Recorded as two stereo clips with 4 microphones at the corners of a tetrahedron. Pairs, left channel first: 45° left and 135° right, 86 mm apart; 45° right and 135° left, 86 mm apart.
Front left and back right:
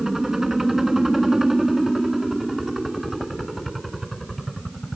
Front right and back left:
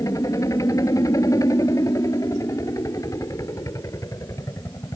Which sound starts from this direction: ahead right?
A helicopter, at 0.0 s.